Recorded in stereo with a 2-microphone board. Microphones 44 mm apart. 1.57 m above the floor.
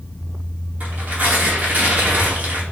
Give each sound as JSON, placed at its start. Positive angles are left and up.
{"t": 0.8, "sound": "tearing paper", "side_deg": -35, "distance_m": 1.2}